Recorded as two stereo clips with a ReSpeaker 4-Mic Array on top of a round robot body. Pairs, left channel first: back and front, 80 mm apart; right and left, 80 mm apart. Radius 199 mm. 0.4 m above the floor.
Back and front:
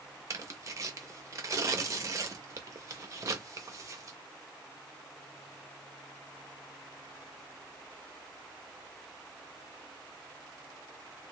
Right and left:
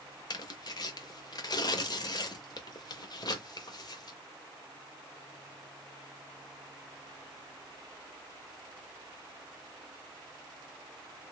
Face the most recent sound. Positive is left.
turn(degrees=-50)